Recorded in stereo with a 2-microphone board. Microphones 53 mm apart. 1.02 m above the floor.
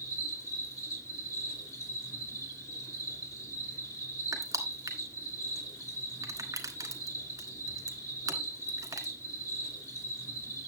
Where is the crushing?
80° right, 1.7 m.